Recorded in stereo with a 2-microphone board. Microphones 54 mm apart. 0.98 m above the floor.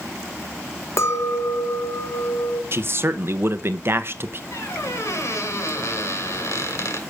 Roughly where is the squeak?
Left.